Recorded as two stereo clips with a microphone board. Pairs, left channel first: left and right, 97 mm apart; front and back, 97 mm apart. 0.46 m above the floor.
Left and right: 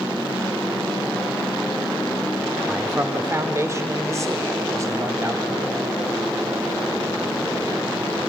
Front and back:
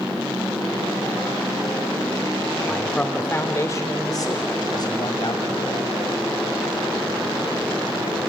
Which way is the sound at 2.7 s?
85° right.